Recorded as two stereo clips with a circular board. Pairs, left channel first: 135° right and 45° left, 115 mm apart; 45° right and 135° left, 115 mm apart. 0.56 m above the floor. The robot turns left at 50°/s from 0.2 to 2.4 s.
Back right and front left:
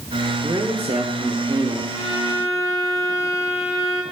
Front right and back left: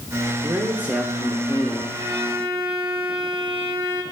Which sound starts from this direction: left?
A man speaking, at 0.4 s.